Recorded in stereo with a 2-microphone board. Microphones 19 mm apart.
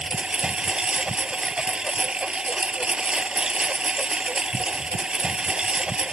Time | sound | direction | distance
0.0 | a lawn mower | 55° right (ahead or behind) | ?